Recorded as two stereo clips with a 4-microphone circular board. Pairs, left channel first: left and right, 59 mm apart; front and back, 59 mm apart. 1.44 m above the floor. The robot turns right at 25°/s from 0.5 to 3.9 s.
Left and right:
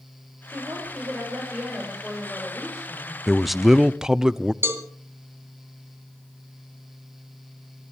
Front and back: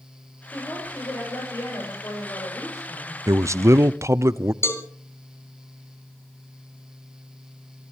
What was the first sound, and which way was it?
A woman speaking, 55° right.